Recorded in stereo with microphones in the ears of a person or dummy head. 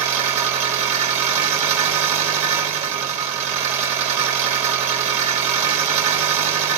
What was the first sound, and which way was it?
An engine running, 40° right (ahead or behind).